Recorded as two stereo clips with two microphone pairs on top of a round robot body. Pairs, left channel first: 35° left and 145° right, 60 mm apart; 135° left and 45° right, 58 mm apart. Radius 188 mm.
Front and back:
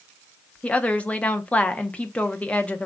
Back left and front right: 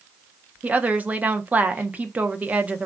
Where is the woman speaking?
15° right, 0.9 m.